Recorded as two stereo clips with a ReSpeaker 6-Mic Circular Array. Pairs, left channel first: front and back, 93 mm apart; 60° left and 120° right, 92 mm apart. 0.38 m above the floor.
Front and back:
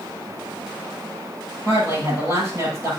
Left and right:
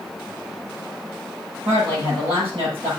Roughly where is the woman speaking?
Behind right.